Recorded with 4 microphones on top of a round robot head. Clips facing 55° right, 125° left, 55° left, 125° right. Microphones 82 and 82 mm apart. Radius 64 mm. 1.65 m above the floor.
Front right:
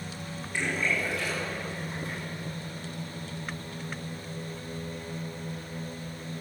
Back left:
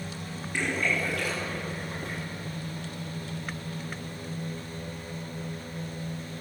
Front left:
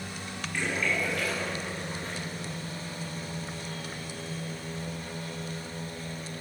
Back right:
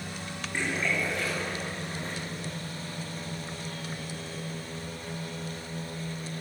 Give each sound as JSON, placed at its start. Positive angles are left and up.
{"t": 0.5, "sound": "a splash", "azimuth_deg": 170, "distance_m": 5.5}